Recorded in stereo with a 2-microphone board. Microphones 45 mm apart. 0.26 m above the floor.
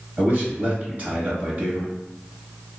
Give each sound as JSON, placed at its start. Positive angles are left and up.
{"t": 0.2, "sound": "a man speaking", "side_deg": -35, "distance_m": 1.4}